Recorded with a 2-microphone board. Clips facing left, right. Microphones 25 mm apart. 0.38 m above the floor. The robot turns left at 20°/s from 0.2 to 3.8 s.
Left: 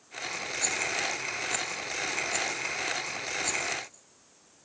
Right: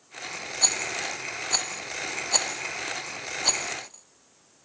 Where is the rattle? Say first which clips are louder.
Right 3 dB; 60° right (ahead or behind).